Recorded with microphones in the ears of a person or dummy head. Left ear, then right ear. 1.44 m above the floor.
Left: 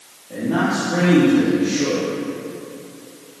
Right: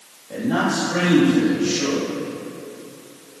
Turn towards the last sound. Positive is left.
turn(degrees=-75)  # may be behind; listen again after turning